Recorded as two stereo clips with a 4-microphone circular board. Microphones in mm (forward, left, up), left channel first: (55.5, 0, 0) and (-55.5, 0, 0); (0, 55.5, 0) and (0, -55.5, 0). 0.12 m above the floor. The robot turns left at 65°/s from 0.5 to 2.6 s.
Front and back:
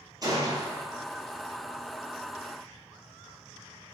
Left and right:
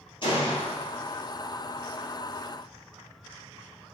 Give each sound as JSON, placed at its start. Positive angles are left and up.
{"t": 0.2, "sound": "a gunshot", "azimuth_deg": 125, "distance_m": 1.4}